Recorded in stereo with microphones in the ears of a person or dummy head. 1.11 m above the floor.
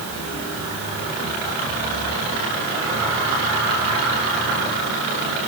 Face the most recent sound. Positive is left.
No sound to turn to.